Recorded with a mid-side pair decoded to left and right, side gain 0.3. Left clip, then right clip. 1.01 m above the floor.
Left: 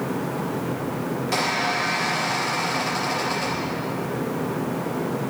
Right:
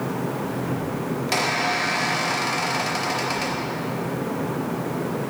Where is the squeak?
65° right, 4 m.